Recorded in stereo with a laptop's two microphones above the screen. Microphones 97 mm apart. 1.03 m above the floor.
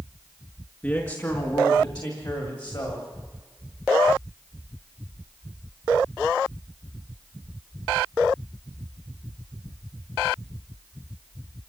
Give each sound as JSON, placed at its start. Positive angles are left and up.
{"t": 0.8, "sound": "a man speaking", "side_deg": 25, "distance_m": 1.7}